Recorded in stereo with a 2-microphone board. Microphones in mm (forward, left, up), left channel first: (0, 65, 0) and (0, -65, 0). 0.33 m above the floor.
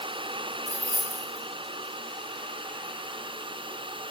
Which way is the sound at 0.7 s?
25° left (ahead or behind).